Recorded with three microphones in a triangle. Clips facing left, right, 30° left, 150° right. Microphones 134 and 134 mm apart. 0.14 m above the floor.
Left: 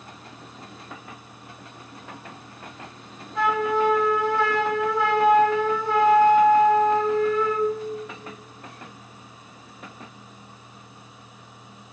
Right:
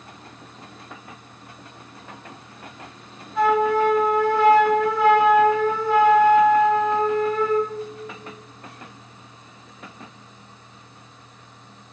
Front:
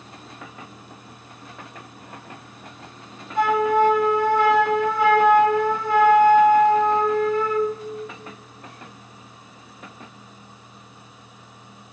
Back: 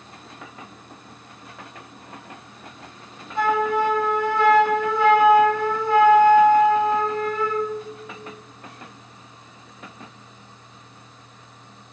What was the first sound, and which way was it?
A flute, 5° right.